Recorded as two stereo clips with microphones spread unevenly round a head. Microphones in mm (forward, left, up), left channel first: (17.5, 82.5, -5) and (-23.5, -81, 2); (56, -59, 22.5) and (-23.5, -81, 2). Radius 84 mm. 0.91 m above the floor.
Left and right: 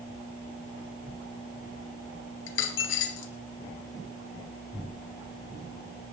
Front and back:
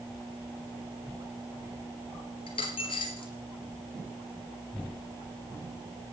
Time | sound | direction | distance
2.5 | a dropped coin | 60° left | 3.5 m